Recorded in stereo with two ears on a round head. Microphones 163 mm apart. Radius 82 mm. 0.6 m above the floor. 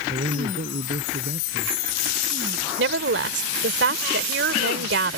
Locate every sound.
0.1 s a man speaking: 45° right (ahead or behind)
2.8 s a woman speaking: 70° right (ahead or behind)